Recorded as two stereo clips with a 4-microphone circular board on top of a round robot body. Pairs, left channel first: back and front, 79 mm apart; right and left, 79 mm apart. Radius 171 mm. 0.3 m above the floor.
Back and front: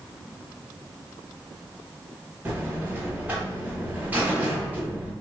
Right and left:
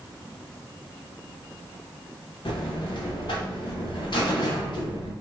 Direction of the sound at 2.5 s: 70° right.